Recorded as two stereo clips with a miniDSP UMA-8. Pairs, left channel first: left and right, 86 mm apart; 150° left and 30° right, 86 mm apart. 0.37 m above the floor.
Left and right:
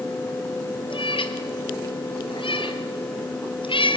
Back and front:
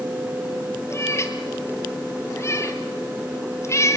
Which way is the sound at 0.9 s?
95° left.